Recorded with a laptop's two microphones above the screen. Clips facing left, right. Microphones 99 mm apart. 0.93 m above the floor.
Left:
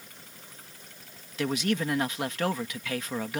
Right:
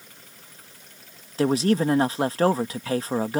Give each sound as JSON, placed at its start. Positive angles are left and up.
{"t": 1.4, "sound": "a man speaking", "side_deg": -35}